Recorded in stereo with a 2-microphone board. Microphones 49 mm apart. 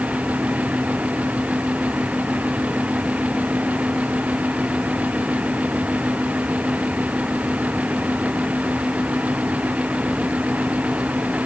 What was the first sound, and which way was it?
Only background noise.